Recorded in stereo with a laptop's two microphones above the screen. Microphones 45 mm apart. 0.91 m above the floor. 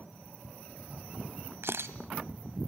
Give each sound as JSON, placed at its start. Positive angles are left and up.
{"t": 1.6, "sound": "a camera shutter", "side_deg": -70, "distance_m": 1.5}